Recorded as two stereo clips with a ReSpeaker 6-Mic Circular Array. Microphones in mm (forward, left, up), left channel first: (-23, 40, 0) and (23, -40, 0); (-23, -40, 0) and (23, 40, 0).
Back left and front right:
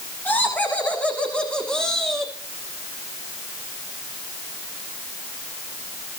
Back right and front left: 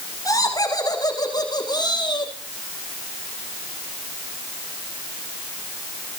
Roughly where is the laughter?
Behind.